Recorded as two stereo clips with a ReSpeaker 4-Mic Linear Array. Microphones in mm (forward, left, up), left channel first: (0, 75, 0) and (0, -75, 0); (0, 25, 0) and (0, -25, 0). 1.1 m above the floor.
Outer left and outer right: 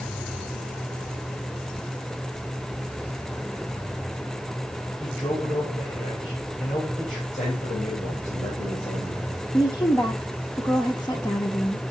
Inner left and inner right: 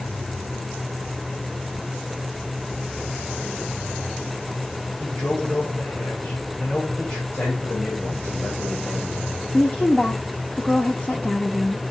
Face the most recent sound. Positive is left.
turn(degrees=20)  # may be behind; listen again after turning